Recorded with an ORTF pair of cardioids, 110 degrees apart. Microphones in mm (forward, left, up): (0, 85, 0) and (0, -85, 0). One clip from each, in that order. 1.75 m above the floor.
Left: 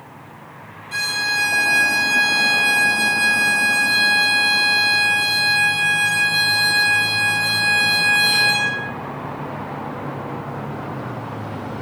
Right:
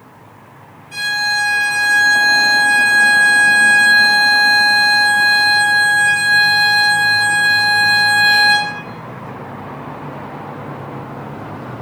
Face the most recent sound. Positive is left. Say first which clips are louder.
# right 3 dB
turn(degrees=35)